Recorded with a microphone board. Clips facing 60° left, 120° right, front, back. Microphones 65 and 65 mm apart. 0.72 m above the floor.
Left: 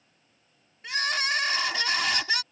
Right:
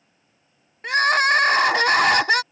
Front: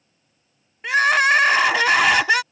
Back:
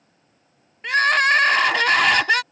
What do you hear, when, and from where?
0.8 s crying: 85° right